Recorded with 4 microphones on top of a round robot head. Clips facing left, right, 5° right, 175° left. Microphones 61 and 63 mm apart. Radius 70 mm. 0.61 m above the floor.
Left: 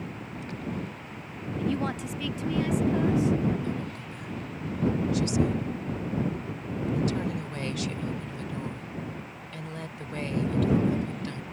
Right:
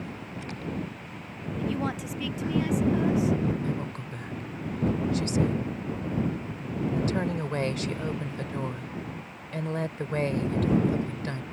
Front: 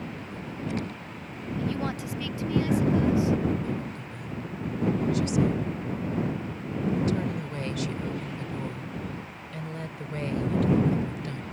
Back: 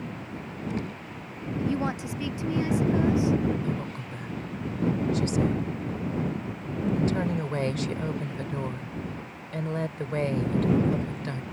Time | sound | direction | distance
1.6 | a woman speaking | 170° right | ?
3.6 | a woman speaking | 135° right | ?